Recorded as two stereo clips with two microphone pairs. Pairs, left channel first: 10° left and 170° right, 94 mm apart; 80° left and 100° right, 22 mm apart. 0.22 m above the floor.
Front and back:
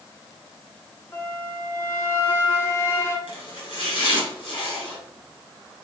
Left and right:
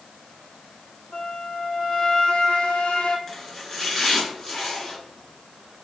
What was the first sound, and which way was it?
A flute, 70° left.